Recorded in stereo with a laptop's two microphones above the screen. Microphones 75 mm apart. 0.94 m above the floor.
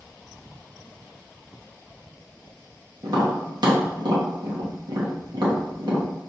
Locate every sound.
3.0 s tapping: 65° right (ahead or behind), 1.1 m